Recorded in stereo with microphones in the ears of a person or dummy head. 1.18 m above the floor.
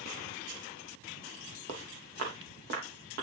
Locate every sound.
1.7 s footsteps: 45° right (ahead or behind), 2.5 m; by 3.2 s 55° right (ahead or behind), 4 m